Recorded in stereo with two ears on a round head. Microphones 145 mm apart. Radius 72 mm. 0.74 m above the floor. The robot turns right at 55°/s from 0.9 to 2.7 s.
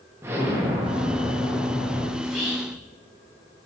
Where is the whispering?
5° left (ahead or behind), 1.0 m; by 2.8 s 15° right (ahead or behind), 1.0 m.